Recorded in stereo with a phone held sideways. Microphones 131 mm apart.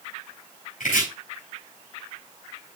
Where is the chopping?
80° left, 4 m.